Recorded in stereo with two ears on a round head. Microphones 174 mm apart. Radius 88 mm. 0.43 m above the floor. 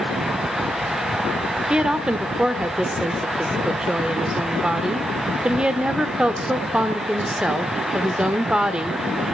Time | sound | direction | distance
1.7 | a woman speaking | 5° right (ahead or behind) | 0.9 m